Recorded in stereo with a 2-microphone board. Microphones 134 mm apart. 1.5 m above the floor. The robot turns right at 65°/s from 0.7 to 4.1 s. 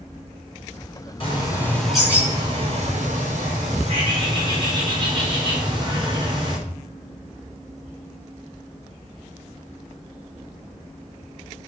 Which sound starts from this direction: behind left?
A bird, at 1.2 s.